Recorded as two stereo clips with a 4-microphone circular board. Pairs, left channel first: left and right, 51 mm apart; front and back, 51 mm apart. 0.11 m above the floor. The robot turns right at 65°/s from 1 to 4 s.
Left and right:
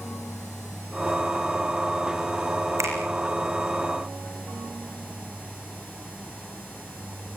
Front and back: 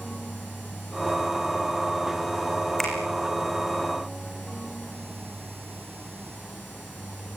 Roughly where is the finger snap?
Right.